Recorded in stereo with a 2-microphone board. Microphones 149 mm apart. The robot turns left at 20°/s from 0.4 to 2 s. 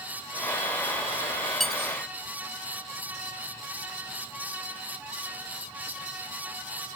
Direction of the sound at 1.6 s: Centre (ahead or behind).